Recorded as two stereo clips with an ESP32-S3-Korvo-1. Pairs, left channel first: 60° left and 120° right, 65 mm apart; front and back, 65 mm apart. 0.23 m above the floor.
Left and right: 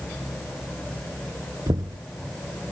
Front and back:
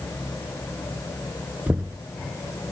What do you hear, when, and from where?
1.7 s knocking: 120° right